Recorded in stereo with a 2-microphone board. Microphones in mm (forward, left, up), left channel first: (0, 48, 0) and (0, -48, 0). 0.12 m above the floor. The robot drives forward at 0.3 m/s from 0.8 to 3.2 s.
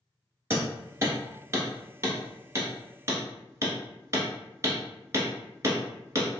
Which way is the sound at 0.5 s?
25° right (ahead or behind).